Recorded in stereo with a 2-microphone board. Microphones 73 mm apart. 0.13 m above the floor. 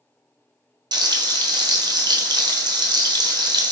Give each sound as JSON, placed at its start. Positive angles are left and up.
{"t": 0.9, "sound": "frying", "side_deg": -75, "distance_m": 0.9}